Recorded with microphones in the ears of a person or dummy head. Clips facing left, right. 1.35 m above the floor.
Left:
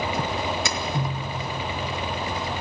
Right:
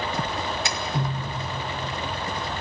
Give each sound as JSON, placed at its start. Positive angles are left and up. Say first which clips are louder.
{"t": 0.7, "sound": "tapping", "louder": "left 2 dB", "side_deg": 80, "distance_m": 2.5}